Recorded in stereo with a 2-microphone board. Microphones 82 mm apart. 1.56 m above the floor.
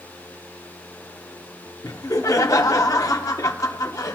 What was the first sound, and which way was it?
Laughter, 45° left (ahead or behind).